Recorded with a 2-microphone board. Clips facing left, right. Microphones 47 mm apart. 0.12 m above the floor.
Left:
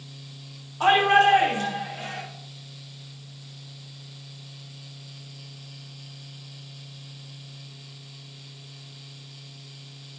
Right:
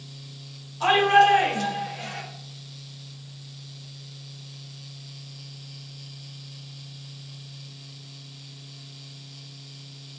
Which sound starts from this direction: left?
A shout, at 0.8 s.